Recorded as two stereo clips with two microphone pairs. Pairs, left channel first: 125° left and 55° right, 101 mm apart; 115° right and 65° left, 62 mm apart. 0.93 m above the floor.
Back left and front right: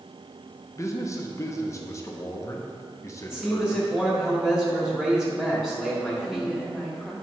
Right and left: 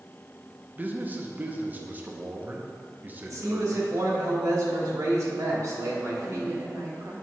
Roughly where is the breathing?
I don't hear breathing.